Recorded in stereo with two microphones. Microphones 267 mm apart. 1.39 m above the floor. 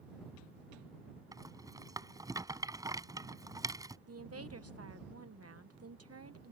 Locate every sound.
1.3 s a rattle: 15° right (ahead or behind)
4.1 s a woman speaking: 70° right (ahead or behind)